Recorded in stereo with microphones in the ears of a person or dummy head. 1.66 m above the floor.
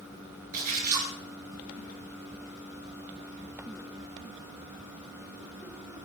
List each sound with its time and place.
0.5 s a splash: 45° right (ahead or behind), 6 m